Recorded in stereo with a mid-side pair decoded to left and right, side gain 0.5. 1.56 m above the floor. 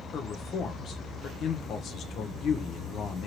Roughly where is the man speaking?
Ahead left.